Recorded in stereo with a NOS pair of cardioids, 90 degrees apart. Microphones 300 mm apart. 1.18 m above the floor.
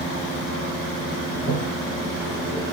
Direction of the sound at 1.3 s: 40° right.